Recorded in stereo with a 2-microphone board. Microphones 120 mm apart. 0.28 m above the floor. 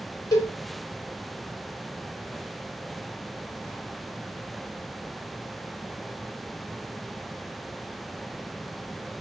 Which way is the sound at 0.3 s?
30° left (ahead or behind).